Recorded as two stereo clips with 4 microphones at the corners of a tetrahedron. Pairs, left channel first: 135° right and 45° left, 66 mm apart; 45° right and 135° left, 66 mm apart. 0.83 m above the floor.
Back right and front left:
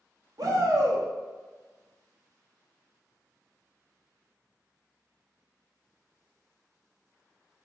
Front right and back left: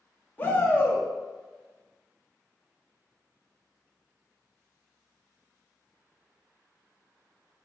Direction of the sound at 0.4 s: 20° left.